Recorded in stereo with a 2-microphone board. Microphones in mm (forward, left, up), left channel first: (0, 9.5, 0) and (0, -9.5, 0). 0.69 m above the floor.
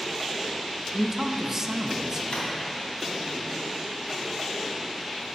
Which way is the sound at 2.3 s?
90° left.